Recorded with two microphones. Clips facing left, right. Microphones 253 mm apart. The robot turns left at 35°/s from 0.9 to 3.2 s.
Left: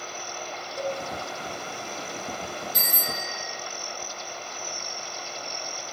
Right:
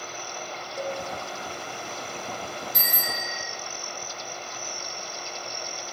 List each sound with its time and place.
0.8 s a cowbell: 5° right (ahead or behind), 3 m; by 1.0 s centre (ahead or behind), 3 m
2.7 s a bicycle bell: 65° right (ahead or behind), 9 m; by 3.5 s 80° right, 9 m